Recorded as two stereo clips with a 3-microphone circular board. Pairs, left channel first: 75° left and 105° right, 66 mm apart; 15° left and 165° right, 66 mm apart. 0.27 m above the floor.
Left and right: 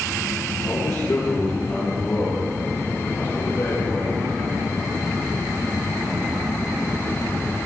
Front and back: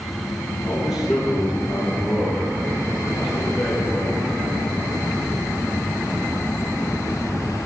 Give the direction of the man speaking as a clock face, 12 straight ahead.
8 o'clock.